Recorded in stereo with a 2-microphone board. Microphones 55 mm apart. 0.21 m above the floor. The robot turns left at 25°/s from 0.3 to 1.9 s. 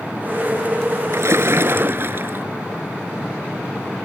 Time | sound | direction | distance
1.1 | a splash | 60° right (ahead or behind) | ?